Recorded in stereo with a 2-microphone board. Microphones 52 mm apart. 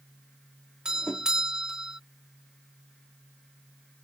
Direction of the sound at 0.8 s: 15° right (ahead or behind).